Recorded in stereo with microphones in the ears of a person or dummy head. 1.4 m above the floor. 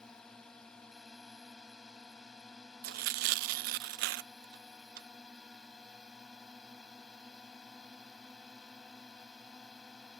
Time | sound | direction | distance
0.0 | a drone | 5° left (ahead or behind) | ?
2.8 | tearing paper | 60° right (ahead or behind) | ?